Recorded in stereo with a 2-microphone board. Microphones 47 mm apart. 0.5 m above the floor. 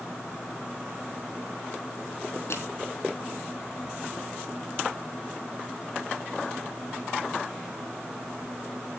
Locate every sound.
2.5 s crushing: 80° left, 3 m